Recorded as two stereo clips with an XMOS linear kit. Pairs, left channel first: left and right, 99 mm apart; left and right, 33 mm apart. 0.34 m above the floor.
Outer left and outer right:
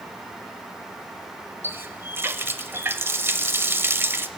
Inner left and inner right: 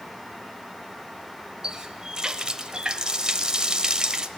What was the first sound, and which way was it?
A running tap, 25° right (ahead or behind).